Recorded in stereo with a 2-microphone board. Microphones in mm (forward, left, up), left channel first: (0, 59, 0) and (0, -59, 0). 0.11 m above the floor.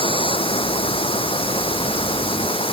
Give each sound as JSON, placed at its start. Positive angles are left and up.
{"t": 0.0, "sound": "running water", "side_deg": 50}